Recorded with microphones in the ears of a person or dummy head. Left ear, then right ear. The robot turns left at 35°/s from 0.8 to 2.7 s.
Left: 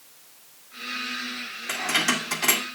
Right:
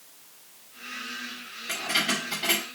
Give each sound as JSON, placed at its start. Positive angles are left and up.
{"t": 1.7, "sound": "keys jangling", "side_deg": 45, "distance_m": 1.7}